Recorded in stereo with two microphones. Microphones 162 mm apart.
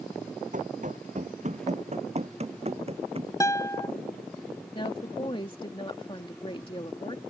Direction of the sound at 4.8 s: 30° left (ahead or behind).